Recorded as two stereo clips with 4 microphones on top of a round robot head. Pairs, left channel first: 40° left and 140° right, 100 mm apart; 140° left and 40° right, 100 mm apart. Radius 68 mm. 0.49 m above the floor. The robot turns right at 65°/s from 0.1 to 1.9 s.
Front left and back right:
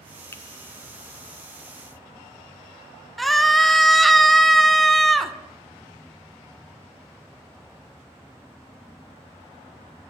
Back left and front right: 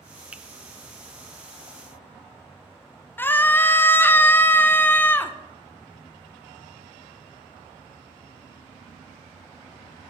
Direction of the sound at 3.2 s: 130° left.